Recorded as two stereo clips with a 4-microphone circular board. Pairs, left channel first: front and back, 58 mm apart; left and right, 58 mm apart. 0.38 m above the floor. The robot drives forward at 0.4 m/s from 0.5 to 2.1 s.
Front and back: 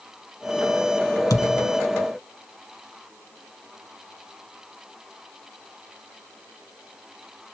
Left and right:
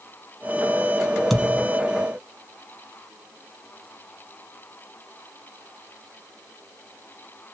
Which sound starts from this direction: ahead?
A thud, at 1.3 s.